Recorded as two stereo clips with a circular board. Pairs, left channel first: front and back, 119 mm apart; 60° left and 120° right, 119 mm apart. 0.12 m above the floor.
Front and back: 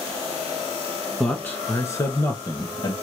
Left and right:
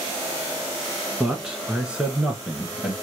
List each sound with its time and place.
1.2 s a man speaking: 60° right, 1.1 m; by 2.9 s 40° right, 1.6 m